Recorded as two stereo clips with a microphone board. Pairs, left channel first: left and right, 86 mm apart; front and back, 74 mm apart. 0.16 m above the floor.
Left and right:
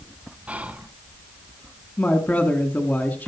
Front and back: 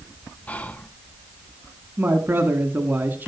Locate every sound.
0.5 s whispering: 35° right, 1.2 m
2.0 s a woman speaking: 140° left, 1.5 m